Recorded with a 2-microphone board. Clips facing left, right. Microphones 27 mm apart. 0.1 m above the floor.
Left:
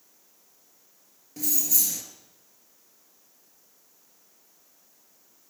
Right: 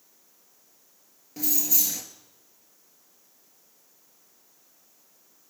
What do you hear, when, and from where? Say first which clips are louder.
1.4 s keys jangling: even; 10° right (ahead or behind), 1.1 m